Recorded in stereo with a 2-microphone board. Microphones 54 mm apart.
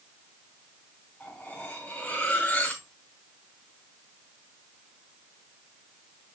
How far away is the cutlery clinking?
About 4 m.